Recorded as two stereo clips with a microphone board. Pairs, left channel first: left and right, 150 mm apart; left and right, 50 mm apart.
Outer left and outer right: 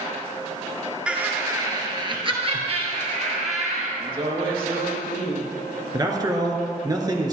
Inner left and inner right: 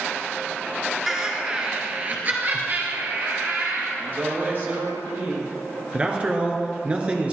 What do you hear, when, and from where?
1.1 s laughter: 5° right (ahead or behind), 1.2 m; by 3.9 s 50° right (ahead or behind), 2.5 m
4.0 s a woman speaking: 35° right (ahead or behind), 3 m
5.9 s a man speaking: 25° right (ahead or behind), 1.6 m